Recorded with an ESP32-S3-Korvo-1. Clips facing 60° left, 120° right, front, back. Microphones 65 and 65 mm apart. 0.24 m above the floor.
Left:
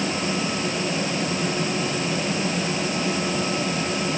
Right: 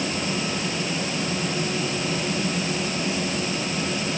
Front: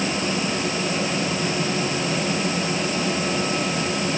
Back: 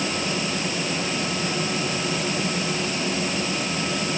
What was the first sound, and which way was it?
Only background noise.